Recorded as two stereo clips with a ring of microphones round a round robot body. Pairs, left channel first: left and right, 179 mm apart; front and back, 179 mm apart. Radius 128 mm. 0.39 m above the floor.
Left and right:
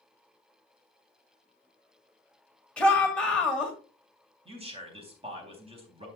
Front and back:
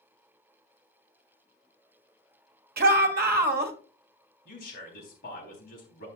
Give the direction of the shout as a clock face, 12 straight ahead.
6 o'clock.